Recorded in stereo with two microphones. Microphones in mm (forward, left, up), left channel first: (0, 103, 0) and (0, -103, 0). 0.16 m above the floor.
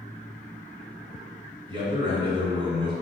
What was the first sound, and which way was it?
A man speaking, 25° right (ahead or behind).